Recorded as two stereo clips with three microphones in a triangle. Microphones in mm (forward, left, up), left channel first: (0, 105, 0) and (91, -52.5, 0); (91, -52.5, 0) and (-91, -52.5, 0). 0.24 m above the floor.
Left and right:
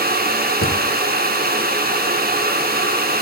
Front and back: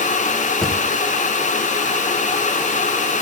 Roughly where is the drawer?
Left.